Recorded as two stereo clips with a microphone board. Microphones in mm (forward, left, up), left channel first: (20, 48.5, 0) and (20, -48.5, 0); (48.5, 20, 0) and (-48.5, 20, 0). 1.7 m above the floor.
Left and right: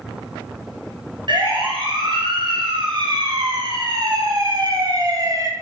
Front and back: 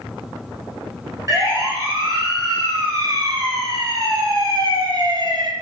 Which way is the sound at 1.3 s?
125° right.